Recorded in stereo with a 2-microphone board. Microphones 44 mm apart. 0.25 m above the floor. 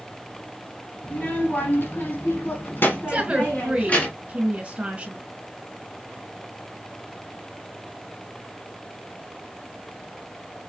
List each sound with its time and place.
1.0 s a child speaking: 45° left (ahead or behind), 1.4 m; by 4.1 s 40° left (ahead or behind), 1.7 m
3.1 s a woman speaking: 30° right (ahead or behind), 1.6 m